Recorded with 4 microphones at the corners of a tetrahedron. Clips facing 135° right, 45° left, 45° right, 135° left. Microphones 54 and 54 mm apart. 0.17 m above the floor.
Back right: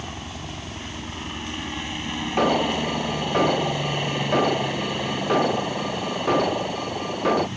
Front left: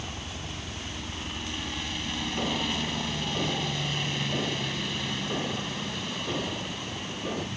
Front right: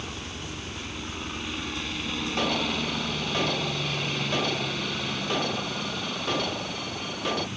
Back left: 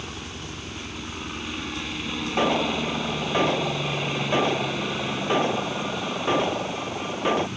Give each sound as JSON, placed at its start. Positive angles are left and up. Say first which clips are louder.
{"t": 0.0, "sound": "a helicopter", "louder": "back right 4 dB, back left 1 dB", "azimuth_deg": -145}
{"t": 2.4, "sound": "an alarm", "louder": "back right 11 dB, back left 6 dB", "azimuth_deg": -160}